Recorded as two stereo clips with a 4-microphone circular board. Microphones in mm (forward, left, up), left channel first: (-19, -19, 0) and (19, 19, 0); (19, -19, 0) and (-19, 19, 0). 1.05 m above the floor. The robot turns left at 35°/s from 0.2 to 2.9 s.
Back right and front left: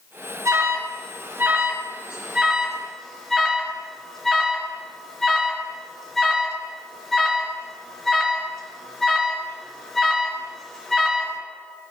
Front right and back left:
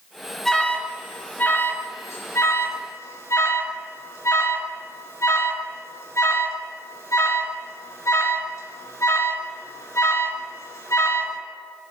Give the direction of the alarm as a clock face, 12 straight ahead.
11 o'clock.